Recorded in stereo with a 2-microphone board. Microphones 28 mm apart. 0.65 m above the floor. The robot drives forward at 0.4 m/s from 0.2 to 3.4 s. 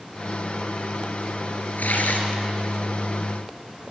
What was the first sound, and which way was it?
Tearing paper, 85° left.